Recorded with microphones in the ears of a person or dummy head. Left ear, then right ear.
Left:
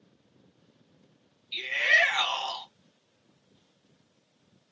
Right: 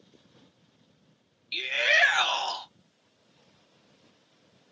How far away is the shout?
About 1.5 m.